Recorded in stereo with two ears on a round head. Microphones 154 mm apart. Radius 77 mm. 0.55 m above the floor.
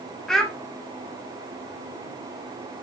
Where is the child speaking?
Centre (ahead or behind), 0.5 m.